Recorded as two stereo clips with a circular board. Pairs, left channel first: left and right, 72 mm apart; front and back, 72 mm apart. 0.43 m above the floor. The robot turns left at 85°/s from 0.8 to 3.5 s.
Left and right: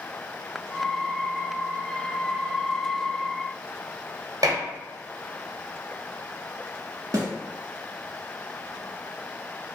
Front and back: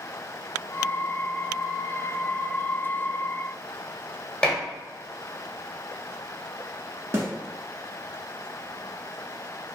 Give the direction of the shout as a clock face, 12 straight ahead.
I don't hear a shout.